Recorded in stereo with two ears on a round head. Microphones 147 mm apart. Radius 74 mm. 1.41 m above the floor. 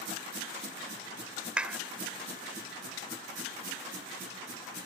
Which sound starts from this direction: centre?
A clap, at 1.6 s.